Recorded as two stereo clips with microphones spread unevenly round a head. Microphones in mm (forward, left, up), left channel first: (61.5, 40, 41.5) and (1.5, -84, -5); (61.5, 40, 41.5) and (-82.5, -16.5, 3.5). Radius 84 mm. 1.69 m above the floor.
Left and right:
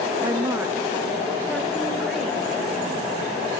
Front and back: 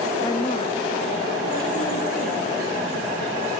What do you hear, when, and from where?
0.2 s a woman speaking: 50° right, 0.8 m; by 2.6 s 25° right, 3 m